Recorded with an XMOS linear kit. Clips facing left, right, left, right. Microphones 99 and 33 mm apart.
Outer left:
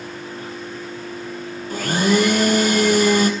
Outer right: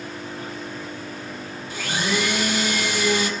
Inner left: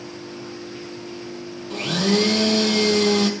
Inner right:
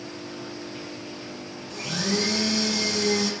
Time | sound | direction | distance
1.7 | a blender | 50° left (ahead or behind) | 2 m